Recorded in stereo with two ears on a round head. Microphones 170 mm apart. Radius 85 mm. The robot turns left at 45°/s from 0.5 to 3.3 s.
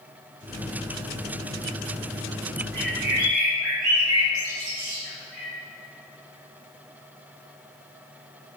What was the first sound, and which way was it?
A bird, 75° right (ahead or behind).